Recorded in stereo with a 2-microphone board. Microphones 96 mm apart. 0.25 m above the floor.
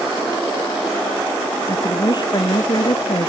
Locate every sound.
1.7 s a woman speaking: 40° left (ahead or behind)